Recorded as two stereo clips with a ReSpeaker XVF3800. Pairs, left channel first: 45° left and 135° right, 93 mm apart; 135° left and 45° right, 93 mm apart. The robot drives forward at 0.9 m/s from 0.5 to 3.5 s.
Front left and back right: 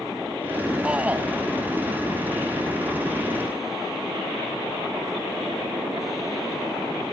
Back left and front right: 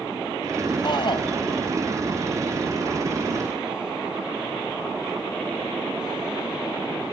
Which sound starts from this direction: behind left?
A shout, at 0.8 s.